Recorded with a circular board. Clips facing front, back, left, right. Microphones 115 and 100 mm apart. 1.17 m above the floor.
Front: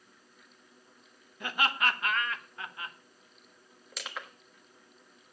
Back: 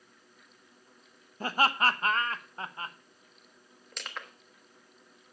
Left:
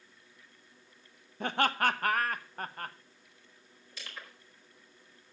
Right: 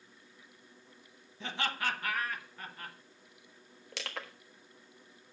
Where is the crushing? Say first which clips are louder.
Front 1 dB, right 6 dB; 85° right, 1.2 m.